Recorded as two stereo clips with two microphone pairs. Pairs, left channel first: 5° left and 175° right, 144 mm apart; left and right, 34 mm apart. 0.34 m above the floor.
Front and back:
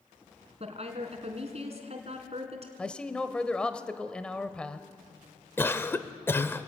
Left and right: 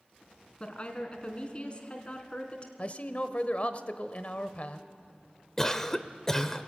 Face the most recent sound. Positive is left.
turn(degrees=45)